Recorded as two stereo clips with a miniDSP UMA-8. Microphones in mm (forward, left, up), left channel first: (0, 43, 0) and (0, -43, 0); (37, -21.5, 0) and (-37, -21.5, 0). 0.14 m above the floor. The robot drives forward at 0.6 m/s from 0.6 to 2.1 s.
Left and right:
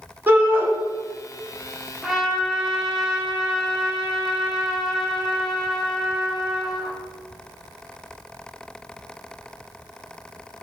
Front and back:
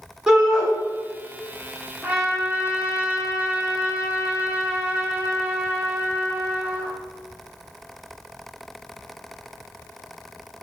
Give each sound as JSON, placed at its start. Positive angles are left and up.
{"t": 0.3, "sound": "a shout", "azimuth_deg": -115, "distance_m": 1.2}
{"t": 2.0, "sound": "a trumpet", "azimuth_deg": -165, "distance_m": 0.9}